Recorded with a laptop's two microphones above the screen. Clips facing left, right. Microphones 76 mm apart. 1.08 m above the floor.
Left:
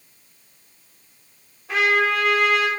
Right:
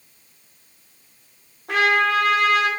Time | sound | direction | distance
1.7 | a trumpet | 65° right (ahead or behind) | 1.4 m